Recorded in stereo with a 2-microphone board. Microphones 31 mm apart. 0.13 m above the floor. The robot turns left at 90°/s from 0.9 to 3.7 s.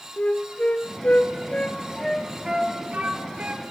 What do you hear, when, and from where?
0.2 s a flute: 50° left (ahead or behind), 1.7 m; by 3.6 s 40° right (ahead or behind), 1.7 m